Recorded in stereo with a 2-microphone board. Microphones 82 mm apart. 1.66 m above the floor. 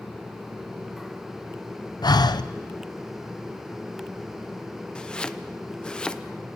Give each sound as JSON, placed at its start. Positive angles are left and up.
{"t": 2.0, "sound": "breathing", "side_deg": 55, "distance_m": 0.7}
{"t": 5.0, "sound": "chopping", "side_deg": 10, "distance_m": 0.7}